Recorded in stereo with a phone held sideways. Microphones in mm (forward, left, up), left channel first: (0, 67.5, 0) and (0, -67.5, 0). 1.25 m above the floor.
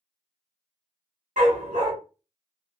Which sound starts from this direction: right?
A dog barking, at 1.4 s.